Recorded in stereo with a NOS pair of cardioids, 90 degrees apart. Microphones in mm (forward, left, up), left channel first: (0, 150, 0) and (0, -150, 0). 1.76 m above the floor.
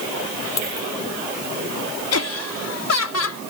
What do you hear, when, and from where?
0.6 s a dropped coin: 60° left
2.1 s laughter: 55° left